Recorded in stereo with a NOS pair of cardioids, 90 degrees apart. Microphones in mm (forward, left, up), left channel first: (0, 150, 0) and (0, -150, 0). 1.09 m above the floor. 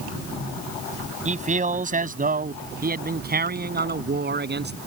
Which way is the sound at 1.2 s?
25° right.